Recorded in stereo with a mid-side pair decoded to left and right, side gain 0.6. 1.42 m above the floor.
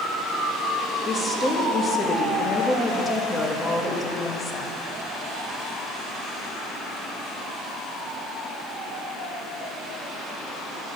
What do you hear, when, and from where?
1.1 s a woman speaking: 15° left, 1.6 m